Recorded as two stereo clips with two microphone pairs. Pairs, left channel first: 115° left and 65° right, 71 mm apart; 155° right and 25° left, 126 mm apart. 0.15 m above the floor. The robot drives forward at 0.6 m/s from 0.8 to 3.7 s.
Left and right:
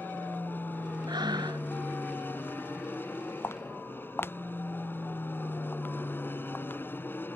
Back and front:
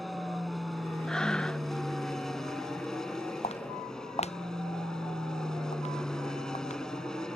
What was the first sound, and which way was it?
An aircraft, 115° left.